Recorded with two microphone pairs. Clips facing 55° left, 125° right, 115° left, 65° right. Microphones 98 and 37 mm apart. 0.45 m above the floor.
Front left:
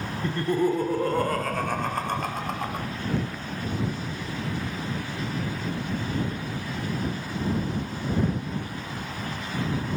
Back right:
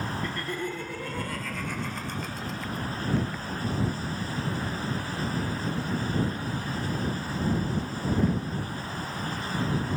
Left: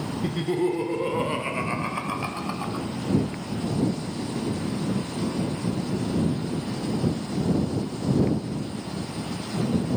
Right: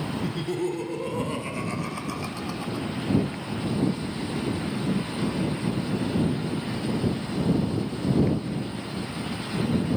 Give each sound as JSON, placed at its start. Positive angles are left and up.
{"t": 0.2, "sound": "laughter", "azimuth_deg": 70}